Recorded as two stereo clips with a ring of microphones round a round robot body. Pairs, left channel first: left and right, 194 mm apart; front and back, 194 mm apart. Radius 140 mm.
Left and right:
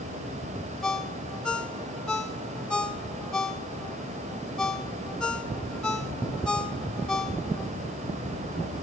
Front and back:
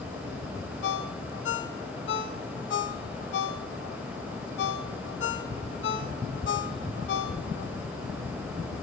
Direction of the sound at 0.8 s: 5° left.